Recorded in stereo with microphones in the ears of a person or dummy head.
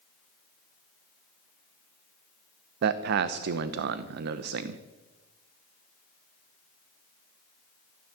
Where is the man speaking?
60° right (ahead or behind), 0.8 m.